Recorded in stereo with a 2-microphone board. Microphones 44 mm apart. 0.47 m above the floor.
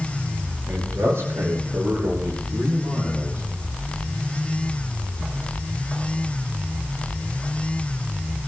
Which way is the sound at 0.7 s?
75° right (ahead or behind).